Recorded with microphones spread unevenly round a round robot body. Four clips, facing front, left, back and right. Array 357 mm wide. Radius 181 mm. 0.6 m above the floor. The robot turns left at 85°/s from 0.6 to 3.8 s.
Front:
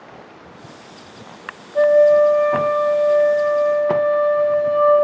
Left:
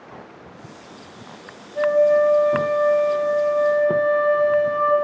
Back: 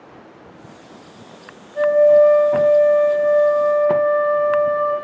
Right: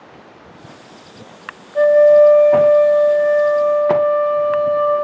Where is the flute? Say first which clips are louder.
Right 7 dB, even; 60° right, 0.8 m; by 4.9 s 125° left, 0.8 m.